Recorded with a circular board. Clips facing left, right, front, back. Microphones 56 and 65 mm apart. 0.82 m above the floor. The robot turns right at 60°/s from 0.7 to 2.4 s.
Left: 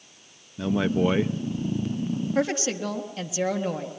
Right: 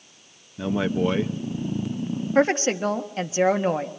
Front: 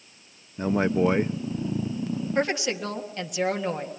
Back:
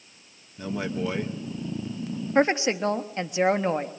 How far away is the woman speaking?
About 1.5 m.